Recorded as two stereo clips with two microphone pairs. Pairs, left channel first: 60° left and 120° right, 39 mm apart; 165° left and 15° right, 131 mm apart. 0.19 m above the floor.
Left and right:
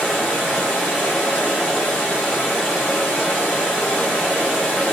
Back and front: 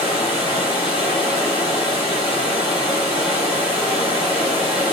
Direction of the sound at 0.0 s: 135° left.